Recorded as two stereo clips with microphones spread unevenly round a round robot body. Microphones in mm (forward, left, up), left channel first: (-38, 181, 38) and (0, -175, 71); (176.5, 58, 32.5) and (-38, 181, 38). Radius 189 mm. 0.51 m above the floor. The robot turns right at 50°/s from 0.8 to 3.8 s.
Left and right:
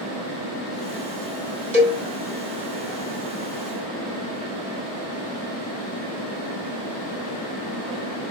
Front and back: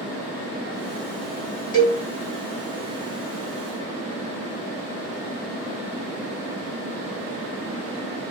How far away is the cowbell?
About 1.3 m.